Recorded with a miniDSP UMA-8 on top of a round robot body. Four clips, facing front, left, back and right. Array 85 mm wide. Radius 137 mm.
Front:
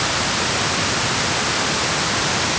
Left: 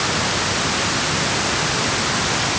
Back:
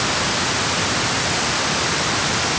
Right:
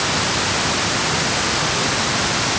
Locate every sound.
Only background noise.